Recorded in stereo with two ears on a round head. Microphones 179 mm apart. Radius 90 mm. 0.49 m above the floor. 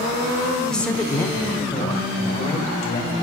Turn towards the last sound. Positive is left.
turn(degrees=30)  # may be behind; listen again after turning